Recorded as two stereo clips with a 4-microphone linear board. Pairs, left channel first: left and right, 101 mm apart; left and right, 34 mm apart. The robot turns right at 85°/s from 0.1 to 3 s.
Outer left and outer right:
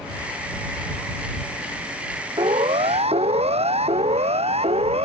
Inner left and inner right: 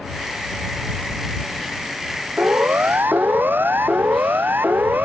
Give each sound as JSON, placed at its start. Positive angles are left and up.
{"t": 2.4, "sound": "a siren", "side_deg": -45}